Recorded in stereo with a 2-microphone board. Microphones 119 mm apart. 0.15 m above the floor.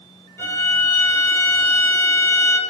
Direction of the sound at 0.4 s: 20° left (ahead or behind).